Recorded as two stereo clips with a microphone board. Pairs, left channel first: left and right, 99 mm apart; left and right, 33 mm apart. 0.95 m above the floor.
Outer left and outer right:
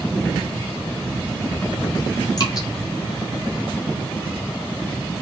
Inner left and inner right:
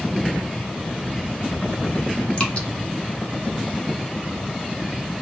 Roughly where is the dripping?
Left.